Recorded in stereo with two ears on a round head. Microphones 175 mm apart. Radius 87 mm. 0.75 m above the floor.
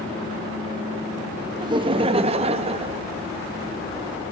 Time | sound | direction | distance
1.6 | laughter | 20° right (ahead or behind) | 0.6 m